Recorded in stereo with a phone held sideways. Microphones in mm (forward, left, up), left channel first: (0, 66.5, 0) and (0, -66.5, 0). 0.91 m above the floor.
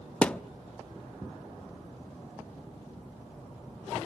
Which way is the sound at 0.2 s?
10° left (ahead or behind).